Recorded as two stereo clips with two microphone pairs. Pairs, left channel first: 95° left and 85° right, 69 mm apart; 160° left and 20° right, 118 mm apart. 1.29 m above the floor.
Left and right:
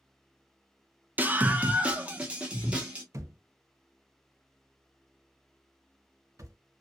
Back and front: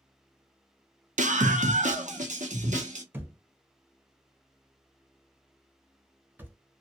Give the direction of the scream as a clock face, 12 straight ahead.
1 o'clock.